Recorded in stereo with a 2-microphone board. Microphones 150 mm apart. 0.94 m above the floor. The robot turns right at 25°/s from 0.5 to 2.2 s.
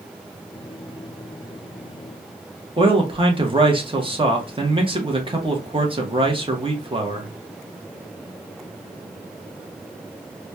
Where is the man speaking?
35° right (ahead or behind), 1.0 m.